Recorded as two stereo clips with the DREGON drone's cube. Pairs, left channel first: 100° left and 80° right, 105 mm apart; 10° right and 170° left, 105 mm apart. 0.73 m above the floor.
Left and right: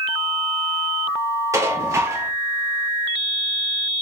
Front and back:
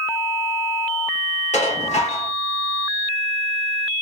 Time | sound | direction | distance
1.5 | dishes clattering | 15° right | 1.6 m